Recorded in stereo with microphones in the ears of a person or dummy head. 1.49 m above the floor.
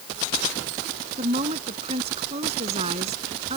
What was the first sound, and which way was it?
A woman speaking, 30° right (ahead or behind).